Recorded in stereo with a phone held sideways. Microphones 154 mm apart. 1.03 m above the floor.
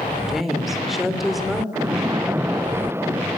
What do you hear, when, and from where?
0.3 s a woman speaking: centre (ahead or behind), 2.5 m
1.7 s a splash: 15° right (ahead or behind), 0.6 m